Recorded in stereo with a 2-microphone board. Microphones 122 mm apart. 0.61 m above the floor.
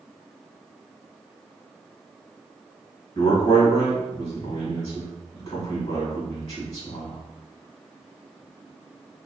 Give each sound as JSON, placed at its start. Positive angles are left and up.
{"t": 3.1, "sound": "a man speaking", "side_deg": 55, "distance_m": 1.7}